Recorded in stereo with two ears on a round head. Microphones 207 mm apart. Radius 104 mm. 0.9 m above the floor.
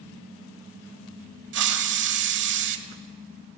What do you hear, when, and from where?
1.5 s a hiss: 50° right (ahead or behind), 1.0 m